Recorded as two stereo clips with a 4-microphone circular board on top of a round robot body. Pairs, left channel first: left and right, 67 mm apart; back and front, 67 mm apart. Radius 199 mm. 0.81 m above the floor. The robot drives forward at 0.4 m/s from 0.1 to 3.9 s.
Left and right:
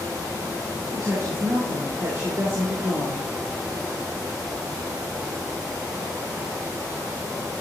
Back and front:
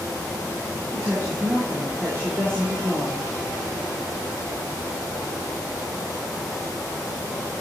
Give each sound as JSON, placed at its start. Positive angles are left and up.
{"t": 0.9, "sound": "a woman speaking", "azimuth_deg": -50, "distance_m": 5.0}